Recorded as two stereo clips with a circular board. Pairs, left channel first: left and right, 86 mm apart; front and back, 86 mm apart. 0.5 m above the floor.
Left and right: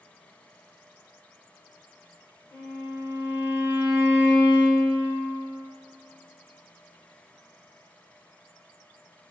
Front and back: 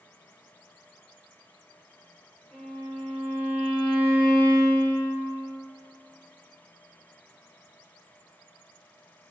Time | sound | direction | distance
2.5 | a violin | 65° left | 0.9 m